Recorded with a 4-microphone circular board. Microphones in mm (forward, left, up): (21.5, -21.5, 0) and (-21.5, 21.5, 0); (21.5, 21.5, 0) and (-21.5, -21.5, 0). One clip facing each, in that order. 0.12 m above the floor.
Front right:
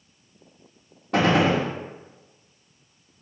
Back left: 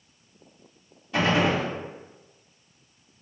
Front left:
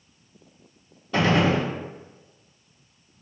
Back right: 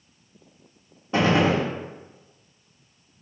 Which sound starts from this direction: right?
A gunshot, at 1.1 s.